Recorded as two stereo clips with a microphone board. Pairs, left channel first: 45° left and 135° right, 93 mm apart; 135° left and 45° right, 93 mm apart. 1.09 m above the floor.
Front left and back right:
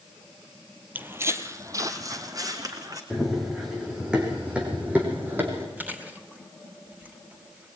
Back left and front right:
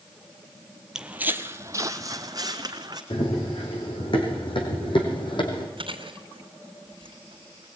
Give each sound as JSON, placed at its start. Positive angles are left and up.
{"t": 0.9, "sound": "footsteps", "azimuth_deg": -115, "distance_m": 1.1}
{"t": 3.1, "sound": "running footsteps", "azimuth_deg": 140, "distance_m": 4.5}
{"t": 5.8, "sound": "chewing", "azimuth_deg": -60, "distance_m": 3.0}